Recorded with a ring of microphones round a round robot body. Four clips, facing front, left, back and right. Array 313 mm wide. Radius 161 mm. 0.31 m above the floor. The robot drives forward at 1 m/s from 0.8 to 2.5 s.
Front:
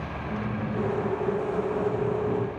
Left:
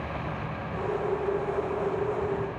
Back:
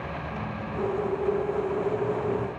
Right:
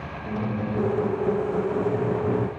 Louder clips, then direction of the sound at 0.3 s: Right 6 dB, front 3 dB; 70° right.